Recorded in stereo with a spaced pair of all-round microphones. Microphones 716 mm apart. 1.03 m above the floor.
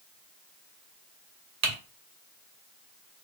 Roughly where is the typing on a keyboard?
Right.